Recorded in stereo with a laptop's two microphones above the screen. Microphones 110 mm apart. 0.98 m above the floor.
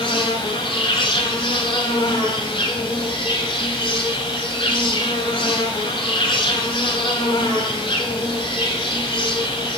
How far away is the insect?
About 1.4 m.